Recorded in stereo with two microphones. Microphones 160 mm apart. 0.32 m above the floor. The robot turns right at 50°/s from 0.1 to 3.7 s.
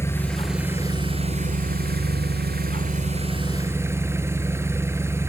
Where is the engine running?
165° left, 2 m; by 5.3 s 15° right, 2 m.